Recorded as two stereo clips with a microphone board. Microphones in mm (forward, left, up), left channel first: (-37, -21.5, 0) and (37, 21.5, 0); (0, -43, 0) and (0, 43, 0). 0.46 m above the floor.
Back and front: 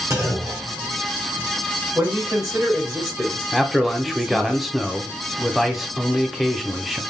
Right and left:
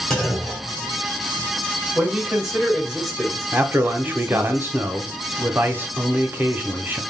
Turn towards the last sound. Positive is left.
turn(degrees=115)